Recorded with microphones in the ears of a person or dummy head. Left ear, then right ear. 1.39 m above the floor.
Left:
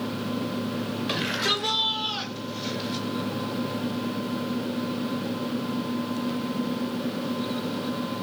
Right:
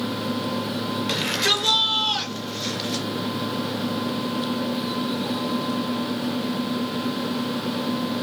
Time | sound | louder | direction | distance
1.1 | a shout | right 4 dB | 10° right (ahead or behind) | 6.5 m